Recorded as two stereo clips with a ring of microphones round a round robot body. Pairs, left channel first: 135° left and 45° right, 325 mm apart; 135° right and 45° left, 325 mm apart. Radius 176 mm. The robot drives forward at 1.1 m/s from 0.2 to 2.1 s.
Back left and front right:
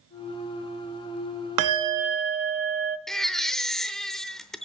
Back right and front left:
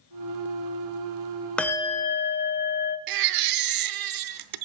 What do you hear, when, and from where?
1.6 s a bell: 50° right, 1.2 m; by 3.0 s 80° right, 1.0 m
3.1 s a baby crying: 45° left, 0.7 m